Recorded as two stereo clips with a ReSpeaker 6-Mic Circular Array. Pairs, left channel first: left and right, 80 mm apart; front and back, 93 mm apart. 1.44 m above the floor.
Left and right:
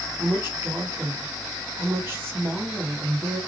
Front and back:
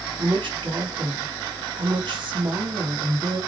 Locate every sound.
0.2 s a woman speaking: 150° right, 1.2 m